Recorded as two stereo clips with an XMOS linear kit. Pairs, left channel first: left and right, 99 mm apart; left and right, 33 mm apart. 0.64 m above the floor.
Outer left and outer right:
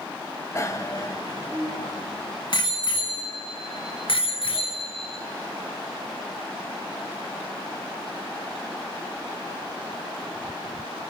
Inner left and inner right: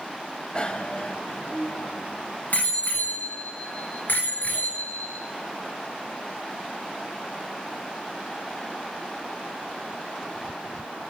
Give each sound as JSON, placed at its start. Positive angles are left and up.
{"t": 0.6, "sound": "a bicycle bell", "side_deg": 30, "distance_m": 2.0}